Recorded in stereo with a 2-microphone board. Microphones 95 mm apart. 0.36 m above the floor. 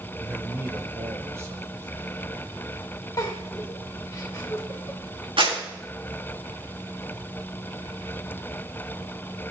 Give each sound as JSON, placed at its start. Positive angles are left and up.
{"t": 0.2, "sound": "a man speaking", "side_deg": -20, "distance_m": 1.1}
{"t": 3.2, "sound": "a giggle", "side_deg": 35, "distance_m": 1.6}
{"t": 5.4, "sound": "a clap", "side_deg": -70, "distance_m": 4.5}